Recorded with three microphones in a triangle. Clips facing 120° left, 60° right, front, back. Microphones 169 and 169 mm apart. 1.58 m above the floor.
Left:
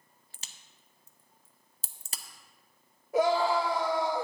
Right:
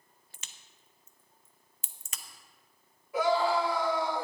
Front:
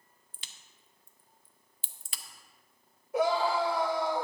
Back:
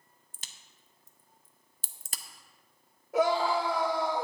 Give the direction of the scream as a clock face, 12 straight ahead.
6 o'clock.